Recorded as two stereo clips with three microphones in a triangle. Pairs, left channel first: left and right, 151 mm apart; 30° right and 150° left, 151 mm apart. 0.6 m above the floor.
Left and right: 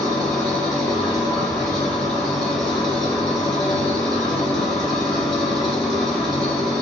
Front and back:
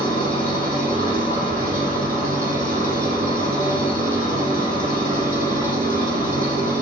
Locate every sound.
0.0 s an engine running: 175° left, 5 m